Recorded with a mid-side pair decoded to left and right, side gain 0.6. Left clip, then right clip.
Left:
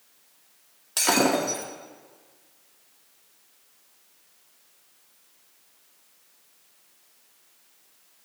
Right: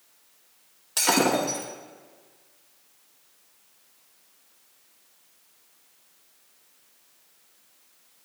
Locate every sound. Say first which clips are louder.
1.0 s breaking glass: even; 5° left, 2.5 m